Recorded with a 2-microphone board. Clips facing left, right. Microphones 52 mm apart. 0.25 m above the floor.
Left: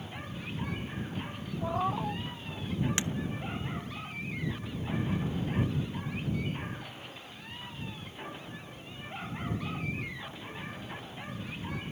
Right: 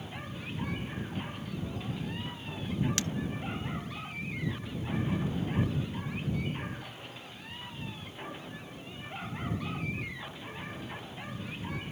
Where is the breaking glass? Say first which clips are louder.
Left 1 dB; 20° left (ahead or behind).